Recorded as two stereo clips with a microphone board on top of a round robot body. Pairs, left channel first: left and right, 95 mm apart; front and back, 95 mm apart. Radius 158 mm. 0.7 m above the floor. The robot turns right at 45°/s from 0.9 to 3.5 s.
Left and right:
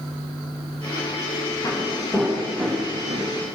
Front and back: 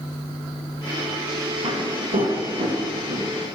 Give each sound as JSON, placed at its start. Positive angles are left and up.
{"t": 1.6, "sound": "footsteps", "azimuth_deg": 145, "distance_m": 8.0}